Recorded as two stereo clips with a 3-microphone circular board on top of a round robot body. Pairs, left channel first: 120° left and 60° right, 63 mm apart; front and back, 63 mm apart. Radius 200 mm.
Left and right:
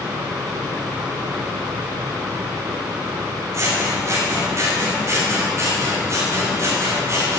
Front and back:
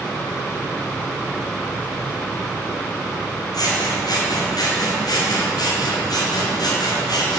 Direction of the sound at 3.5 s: 15° right.